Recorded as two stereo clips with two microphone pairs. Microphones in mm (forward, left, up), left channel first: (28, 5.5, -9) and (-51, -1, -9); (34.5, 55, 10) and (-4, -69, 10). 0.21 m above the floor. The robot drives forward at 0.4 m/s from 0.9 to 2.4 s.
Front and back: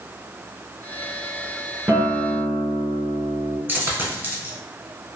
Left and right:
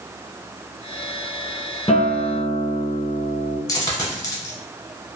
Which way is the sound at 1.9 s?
120° left.